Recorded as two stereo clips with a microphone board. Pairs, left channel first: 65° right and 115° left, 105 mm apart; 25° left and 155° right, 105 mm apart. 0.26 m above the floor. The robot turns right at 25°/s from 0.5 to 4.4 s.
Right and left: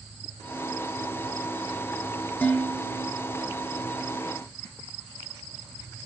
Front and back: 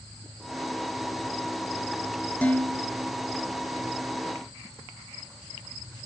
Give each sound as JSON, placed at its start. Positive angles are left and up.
{"t": 2.4, "sound": "dishes clattering", "azimuth_deg": -30, "distance_m": 0.8}